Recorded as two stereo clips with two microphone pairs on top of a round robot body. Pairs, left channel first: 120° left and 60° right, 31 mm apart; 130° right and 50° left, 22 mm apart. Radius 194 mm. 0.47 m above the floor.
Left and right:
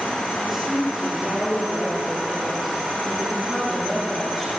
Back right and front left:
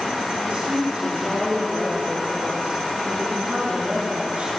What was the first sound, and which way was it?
A woman speaking, 25° left.